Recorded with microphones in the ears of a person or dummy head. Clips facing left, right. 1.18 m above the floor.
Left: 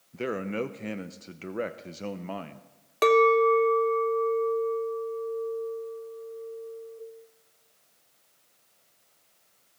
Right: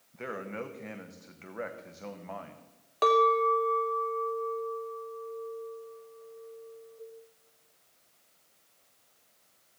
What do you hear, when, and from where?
0.1 s a man speaking: 50° left (ahead or behind), 0.6 m
3.0 s a clink: 30° left (ahead or behind), 0.6 m